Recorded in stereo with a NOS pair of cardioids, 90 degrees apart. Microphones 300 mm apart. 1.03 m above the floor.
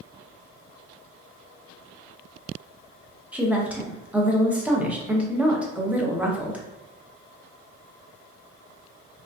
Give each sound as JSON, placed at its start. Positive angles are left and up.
{"t": 3.3, "sound": "a woman speaking", "azimuth_deg": -5, "distance_m": 0.7}